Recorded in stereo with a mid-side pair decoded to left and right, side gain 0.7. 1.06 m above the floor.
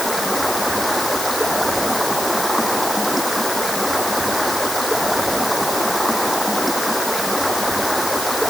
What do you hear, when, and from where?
0.0 s running water: straight ahead